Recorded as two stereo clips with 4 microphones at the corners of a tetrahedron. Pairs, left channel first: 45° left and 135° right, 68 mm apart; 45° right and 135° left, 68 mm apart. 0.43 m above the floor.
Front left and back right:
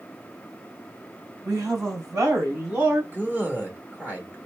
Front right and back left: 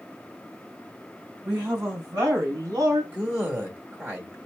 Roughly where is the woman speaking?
Behind.